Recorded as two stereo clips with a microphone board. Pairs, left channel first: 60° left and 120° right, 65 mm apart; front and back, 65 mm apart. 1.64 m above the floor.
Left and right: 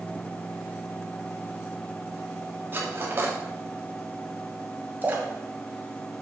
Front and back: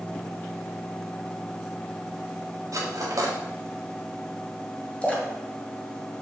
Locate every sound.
2.7 s cutlery clinking: 170° right, 1.9 m
5.0 s a splash: 70° right, 2 m